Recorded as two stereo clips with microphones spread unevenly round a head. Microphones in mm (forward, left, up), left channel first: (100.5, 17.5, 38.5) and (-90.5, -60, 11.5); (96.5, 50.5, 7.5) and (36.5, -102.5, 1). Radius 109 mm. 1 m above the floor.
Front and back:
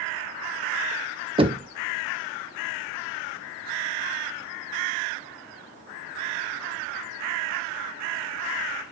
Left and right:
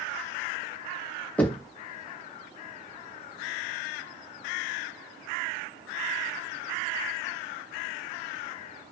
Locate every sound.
1.4 s knocking: 155° left, 0.7 m